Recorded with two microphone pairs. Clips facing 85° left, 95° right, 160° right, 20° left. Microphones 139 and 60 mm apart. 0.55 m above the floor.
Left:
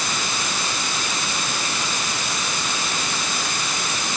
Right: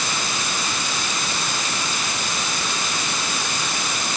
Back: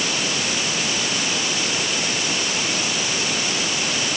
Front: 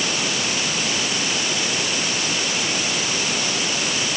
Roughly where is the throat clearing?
No throat clearing in this recording.